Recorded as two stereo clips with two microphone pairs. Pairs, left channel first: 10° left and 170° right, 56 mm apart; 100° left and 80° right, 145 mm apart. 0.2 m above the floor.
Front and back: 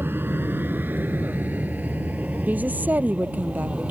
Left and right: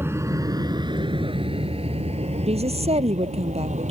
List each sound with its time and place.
0.0 s an aircraft: 145° right; by 3.9 s 110° right
2.5 s a woman speaking: 115° right